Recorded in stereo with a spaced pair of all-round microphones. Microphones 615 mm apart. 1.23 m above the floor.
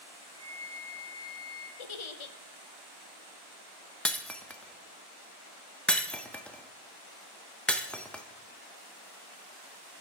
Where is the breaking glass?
Centre (ahead or behind), 0.6 m.